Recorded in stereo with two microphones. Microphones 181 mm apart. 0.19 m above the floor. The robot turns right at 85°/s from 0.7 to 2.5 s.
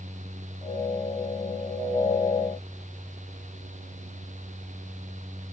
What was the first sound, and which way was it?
Only background noise.